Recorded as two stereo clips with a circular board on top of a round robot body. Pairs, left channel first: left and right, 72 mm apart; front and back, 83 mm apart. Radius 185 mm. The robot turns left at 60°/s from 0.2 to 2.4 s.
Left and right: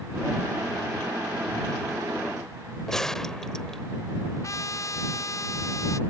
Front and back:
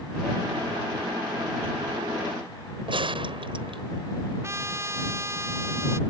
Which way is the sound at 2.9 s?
175° left.